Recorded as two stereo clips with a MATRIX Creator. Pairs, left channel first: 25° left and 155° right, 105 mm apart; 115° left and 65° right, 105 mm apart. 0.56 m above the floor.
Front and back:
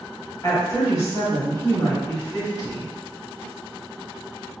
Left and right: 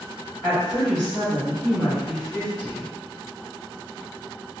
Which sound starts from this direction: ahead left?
A woman speaking, at 0.4 s.